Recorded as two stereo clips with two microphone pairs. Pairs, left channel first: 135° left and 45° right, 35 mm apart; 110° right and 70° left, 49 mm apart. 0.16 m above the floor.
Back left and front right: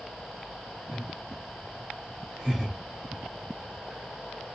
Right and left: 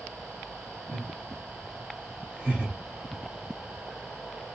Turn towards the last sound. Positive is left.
turn(degrees=30)